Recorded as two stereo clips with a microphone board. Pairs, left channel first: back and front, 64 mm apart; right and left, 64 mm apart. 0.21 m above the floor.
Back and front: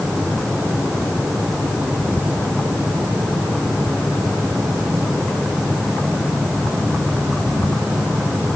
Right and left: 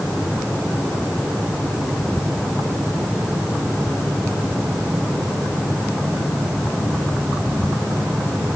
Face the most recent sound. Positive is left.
No sound to turn to.